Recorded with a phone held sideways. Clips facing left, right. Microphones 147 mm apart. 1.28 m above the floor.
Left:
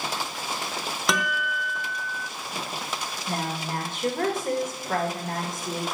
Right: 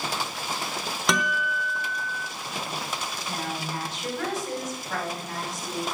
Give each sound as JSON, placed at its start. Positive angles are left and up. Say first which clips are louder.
{"t": 1.1, "sound": "a guitar", "louder": "right 1 dB", "side_deg": 0, "distance_m": 1.0}
{"t": 3.3, "sound": "a woman speaking", "louder": "left 3 dB", "side_deg": 55, "distance_m": 2.5}